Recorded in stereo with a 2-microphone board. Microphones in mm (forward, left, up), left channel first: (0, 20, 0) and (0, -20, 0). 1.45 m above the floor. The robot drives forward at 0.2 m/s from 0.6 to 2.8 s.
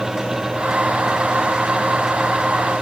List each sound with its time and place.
Only background noise.